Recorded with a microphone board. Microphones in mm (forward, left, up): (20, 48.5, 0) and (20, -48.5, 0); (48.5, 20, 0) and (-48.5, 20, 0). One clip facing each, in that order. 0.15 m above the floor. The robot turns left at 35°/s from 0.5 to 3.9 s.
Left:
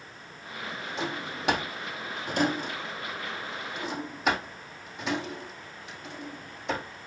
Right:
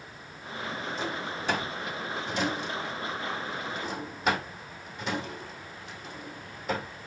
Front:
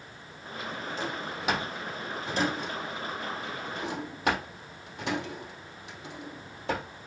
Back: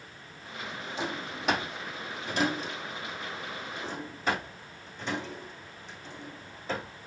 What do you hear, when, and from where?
1.0 s a drawer: 105° left, 3.5 m; by 6.9 s straight ahead, 3.5 m